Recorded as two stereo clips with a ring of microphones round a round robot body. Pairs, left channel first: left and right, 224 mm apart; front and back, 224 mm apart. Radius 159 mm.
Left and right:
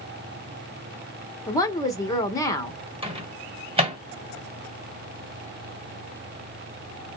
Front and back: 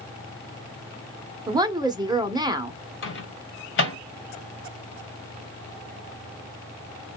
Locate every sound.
1.5 s a woman speaking: 140° left, 0.8 m
3.0 s a microwave: 25° right, 1.2 m